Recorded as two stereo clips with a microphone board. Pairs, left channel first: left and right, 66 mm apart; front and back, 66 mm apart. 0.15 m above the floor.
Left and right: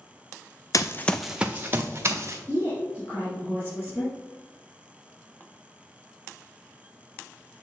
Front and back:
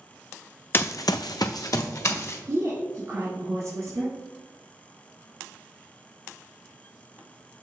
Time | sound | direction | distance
0.7 | running footsteps | 60° left | 0.5 m
2.5 | a woman speaking | 140° left | 2.5 m